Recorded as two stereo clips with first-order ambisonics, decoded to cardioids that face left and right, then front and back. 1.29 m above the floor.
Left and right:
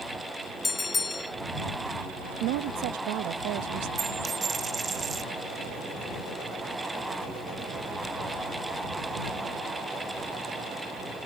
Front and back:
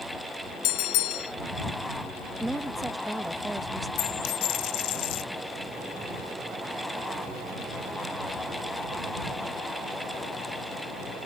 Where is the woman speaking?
95° right.